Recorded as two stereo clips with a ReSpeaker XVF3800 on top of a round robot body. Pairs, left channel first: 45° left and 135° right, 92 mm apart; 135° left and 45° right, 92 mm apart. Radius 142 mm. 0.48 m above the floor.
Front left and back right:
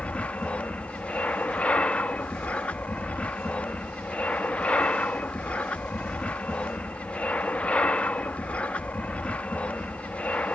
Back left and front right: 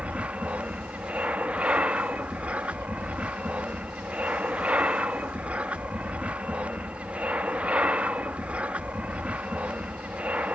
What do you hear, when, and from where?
0.0 s an aircraft: straight ahead